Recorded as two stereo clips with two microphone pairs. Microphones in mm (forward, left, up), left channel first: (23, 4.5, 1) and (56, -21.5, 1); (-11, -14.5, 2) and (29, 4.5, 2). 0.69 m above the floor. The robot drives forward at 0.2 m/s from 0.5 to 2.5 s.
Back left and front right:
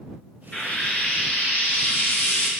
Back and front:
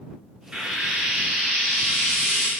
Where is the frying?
90° left, 0.7 m; by 2.5 s 130° left, 0.8 m.